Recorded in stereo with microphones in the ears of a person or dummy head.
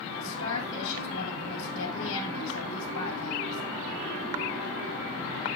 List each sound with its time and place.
0.2 s a woman speaking: 70° left (ahead or behind), 3 m